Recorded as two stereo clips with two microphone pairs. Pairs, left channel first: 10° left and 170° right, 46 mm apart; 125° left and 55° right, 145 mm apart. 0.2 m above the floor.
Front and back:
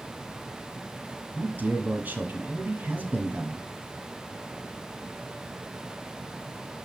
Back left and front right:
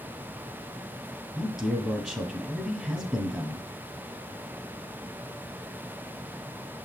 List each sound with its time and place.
1.4 s a man speaking: 145° right, 1.5 m